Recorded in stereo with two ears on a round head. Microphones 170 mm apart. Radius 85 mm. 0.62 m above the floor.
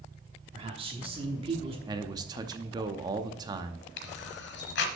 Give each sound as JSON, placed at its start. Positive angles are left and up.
{"t": 0.5, "sound": "a man speaking", "side_deg": -30, "distance_m": 1.1}
{"t": 1.9, "sound": "a man speaking", "side_deg": -20, "distance_m": 0.6}
{"t": 4.0, "sound": "a camera shutter", "side_deg": 70, "distance_m": 1.1}